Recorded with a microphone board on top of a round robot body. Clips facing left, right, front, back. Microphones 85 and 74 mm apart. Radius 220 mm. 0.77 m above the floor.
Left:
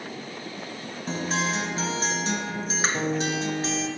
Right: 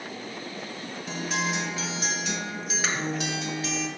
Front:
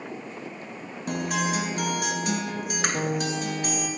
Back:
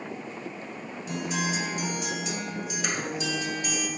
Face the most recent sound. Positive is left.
turn(degrees=35)